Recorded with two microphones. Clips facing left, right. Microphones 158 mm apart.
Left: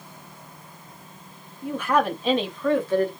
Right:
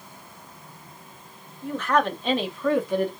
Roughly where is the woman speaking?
Centre.